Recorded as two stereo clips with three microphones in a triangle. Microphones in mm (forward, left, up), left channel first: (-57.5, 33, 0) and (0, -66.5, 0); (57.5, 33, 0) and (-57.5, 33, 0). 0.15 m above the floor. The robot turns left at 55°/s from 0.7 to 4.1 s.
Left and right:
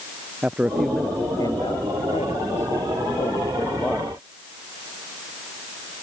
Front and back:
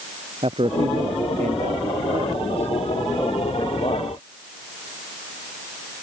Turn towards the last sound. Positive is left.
turn(degrees=30)